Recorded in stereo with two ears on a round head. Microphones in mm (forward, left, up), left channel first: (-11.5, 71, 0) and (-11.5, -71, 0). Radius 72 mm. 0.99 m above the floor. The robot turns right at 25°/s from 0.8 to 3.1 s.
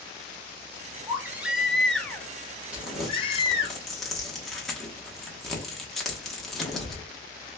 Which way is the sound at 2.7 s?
10° right (ahead or behind).